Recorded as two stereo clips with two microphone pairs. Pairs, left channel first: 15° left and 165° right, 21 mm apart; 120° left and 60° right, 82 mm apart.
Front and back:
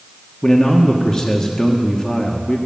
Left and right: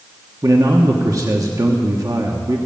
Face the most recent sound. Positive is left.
turn(degrees=-35)